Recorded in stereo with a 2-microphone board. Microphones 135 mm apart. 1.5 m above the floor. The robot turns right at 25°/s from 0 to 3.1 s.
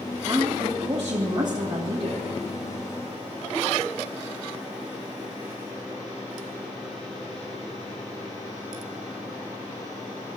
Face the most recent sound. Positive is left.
turn(degrees=-75)